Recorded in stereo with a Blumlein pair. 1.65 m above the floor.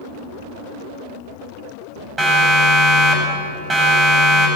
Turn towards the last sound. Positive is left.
turn(degrees=-15)